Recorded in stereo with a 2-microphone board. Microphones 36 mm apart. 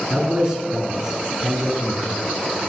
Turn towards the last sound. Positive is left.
turn(degrees=-15)  # may be behind; listen again after turning